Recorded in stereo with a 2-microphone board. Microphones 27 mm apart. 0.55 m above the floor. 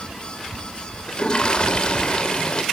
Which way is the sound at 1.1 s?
35° left (ahead or behind).